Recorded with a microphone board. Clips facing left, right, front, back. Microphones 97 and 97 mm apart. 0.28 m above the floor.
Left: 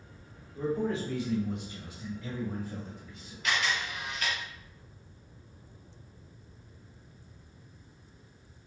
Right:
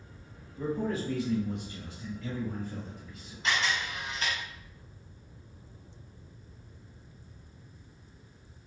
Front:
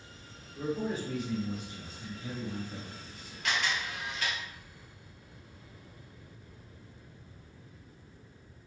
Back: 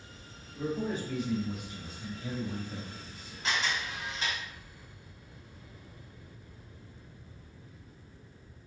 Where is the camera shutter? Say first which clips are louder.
Right 1 dB, even; 130° right, 1.8 m.